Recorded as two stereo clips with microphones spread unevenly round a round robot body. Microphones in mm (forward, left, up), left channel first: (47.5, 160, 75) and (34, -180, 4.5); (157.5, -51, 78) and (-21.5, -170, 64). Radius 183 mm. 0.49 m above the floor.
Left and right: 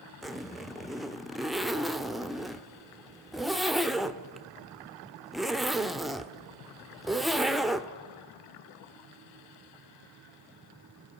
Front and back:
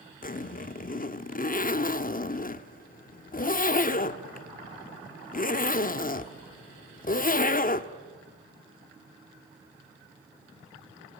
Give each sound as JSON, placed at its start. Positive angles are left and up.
{"t": 0.2, "sound": "a zipper", "azimuth_deg": -10, "distance_m": 1.1}